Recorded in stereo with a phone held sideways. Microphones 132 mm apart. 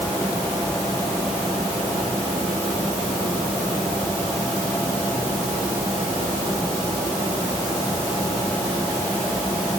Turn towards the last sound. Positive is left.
No sound to turn to.